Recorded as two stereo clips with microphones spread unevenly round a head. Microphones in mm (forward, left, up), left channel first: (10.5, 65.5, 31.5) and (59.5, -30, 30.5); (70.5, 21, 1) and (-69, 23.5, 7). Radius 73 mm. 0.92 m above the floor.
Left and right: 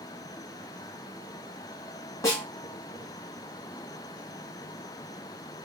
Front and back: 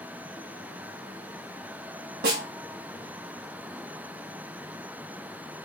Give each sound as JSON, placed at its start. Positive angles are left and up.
{"t": 2.2, "sound": "a snare drum", "azimuth_deg": 180, "distance_m": 1.6}